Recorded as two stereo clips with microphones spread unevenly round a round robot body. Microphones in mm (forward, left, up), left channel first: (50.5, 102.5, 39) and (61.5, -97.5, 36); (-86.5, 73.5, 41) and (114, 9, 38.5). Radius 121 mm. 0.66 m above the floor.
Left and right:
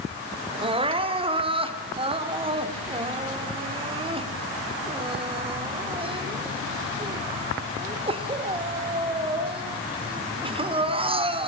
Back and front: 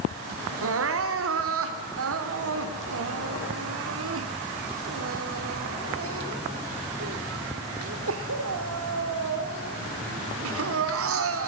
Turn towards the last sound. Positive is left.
turn(degrees=-25)